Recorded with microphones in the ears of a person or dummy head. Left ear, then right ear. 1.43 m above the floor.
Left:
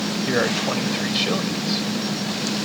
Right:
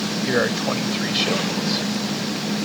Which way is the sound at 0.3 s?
Centre (ahead or behind).